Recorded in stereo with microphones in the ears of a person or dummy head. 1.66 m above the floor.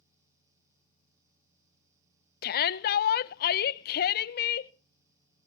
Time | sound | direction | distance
2.4 | a shout | 65° left (ahead or behind) | 0.6 m